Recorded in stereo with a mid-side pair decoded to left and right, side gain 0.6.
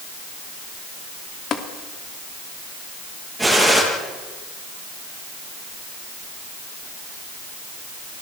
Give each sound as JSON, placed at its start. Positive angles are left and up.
{"t": 1.5, "sound": "tapping", "azimuth_deg": 45, "distance_m": 2.5}
{"t": 3.4, "sound": "a gunshot", "azimuth_deg": -5, "distance_m": 9.0}